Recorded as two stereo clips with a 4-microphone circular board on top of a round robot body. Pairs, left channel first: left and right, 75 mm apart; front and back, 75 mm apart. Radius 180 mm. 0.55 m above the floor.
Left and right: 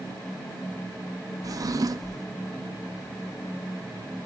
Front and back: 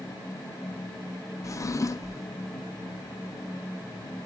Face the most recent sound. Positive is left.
turn(degrees=-50)